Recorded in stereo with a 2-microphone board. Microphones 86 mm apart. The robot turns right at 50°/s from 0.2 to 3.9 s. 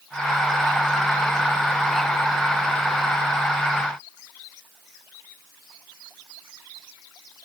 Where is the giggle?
No giggle in this recording.